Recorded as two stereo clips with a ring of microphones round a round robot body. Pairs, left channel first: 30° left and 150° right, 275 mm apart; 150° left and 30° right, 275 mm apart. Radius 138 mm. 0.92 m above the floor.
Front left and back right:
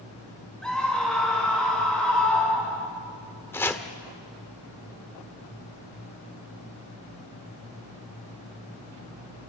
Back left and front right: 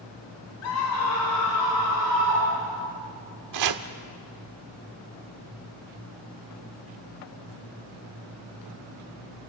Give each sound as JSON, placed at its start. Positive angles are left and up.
{"t": 0.6, "sound": "a scream", "azimuth_deg": 115, "distance_m": 5.0}
{"t": 3.5, "sound": "chopping", "azimuth_deg": -50, "distance_m": 1.3}